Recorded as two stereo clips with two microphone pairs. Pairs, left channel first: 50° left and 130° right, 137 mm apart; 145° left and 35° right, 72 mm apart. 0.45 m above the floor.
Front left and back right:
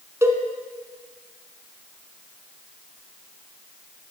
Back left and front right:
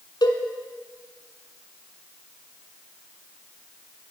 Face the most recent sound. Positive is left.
turn(degrees=160)